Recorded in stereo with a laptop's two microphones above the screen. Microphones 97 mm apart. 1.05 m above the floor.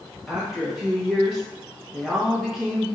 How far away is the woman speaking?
About 1.2 m.